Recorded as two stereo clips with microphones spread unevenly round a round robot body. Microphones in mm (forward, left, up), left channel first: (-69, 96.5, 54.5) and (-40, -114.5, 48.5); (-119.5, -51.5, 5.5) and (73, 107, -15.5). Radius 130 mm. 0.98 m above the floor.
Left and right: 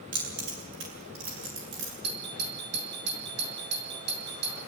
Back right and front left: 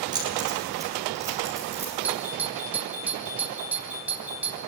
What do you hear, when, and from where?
0.1 s keys jangling: 35° right, 8 m; by 1.9 s 45° right, 9 m
2.0 s a doorbell: 45° right, 3 m